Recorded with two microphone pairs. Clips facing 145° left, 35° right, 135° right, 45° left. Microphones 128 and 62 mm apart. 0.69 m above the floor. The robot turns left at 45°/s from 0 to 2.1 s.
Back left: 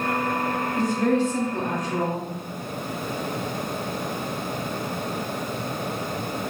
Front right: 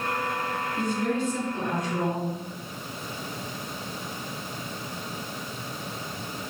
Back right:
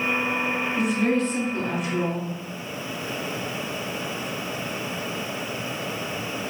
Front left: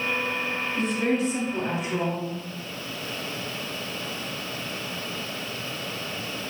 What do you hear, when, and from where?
0.8 s a woman speaking: 145° left, 2.5 m; by 2.3 s 85° left, 2.5 m